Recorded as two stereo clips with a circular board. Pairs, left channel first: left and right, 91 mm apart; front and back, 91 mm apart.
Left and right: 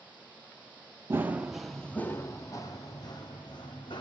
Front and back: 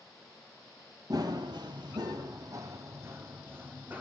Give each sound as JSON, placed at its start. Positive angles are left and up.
{"t": 1.1, "sound": "running footsteps", "azimuth_deg": -150, "distance_m": 0.8}